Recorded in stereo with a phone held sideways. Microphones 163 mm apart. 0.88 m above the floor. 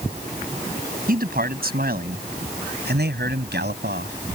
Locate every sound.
1.1 s a man speaking: 60° right (ahead or behind); by 4.2 s 85° right